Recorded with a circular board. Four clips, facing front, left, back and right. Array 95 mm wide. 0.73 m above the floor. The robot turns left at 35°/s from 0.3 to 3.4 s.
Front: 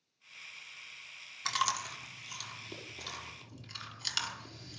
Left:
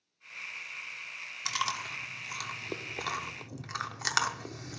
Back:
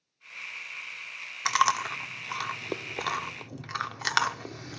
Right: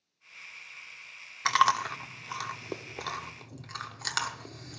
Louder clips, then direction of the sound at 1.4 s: Right 11 dB, back 9 dB; 125° right.